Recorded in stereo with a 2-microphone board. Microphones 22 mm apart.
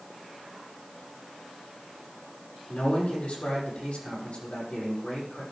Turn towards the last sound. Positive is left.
turn(degrees=75)  # may be behind; listen again after turning